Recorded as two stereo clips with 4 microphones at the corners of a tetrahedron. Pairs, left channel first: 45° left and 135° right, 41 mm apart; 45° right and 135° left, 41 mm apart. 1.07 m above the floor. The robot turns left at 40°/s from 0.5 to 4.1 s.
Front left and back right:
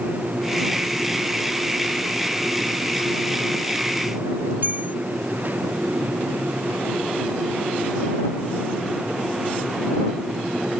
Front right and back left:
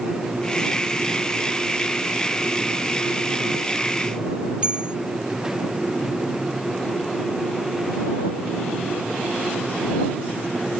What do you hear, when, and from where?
4.6 s a bell: 165° right